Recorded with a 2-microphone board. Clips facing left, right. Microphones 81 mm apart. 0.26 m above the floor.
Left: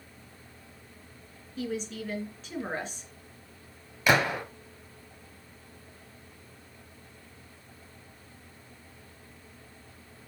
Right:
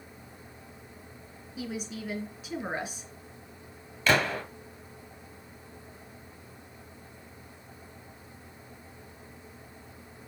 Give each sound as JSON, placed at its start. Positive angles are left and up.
{"t": 1.6, "sound": "a woman speaking", "side_deg": -10, "distance_m": 3.5}
{"t": 4.1, "sound": "a gunshot", "side_deg": 15, "distance_m": 1.7}